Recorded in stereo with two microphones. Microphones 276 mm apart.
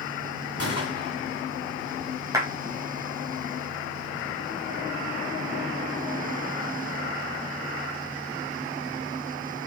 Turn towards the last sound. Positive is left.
turn(degrees=-10)  # may be behind; listen again after turning